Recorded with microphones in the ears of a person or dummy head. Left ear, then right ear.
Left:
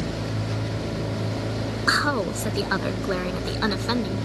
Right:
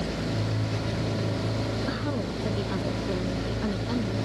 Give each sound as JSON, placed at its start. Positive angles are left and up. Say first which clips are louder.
{"t": 1.9, "sound": "a woman speaking", "louder": "left 9 dB", "side_deg": 65}